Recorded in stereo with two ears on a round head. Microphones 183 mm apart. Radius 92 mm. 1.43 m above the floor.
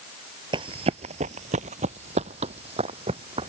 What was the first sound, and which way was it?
Running footsteps, 25° right (ahead or behind).